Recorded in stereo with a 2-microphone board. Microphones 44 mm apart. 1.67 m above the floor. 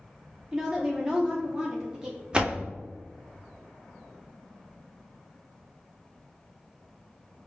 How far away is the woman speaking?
About 0.5 m.